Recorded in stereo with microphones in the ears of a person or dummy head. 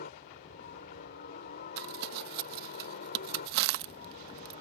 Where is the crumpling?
55° right (ahead or behind).